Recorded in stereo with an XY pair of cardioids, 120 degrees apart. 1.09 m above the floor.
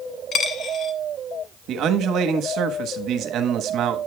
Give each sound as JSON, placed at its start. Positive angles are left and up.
{"t": 0.3, "sound": "a dropped coin", "azimuth_deg": 50, "distance_m": 1.1}
{"t": 1.7, "sound": "a man speaking", "azimuth_deg": -65, "distance_m": 1.2}